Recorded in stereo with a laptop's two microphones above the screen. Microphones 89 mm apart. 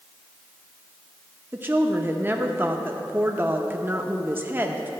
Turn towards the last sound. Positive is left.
turn(degrees=-25)  # may be behind; listen again after turning